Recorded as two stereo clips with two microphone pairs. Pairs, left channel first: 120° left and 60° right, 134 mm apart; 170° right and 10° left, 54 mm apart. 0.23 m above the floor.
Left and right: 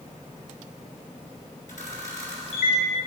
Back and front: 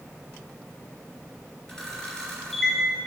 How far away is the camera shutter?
About 3 m.